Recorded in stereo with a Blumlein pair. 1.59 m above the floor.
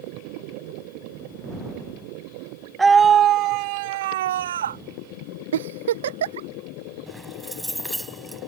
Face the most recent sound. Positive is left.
turn(degrees=0)